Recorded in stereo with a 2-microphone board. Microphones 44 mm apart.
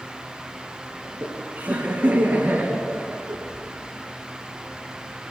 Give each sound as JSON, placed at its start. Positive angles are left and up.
{"t": 1.0, "sound": "laughter", "side_deg": -60, "distance_m": 3.0}